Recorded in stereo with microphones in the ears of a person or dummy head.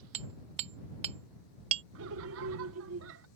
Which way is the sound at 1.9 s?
70° right (ahead or behind).